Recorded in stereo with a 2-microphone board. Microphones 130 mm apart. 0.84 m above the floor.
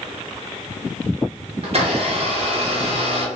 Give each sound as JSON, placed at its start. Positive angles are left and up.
{"t": 1.6, "sound": "a blender", "side_deg": -50, "distance_m": 0.9}